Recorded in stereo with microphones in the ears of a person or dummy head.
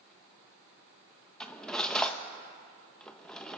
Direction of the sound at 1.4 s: 5° left (ahead or behind).